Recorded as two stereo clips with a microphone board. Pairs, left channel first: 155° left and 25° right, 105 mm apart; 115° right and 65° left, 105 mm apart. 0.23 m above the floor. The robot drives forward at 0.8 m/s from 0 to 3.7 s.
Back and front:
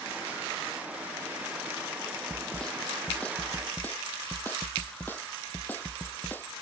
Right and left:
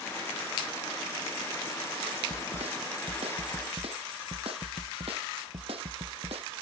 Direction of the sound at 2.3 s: 70° left.